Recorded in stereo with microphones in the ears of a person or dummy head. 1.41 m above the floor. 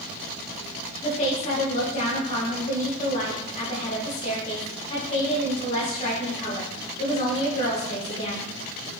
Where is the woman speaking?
30° left (ahead or behind), 2.5 m.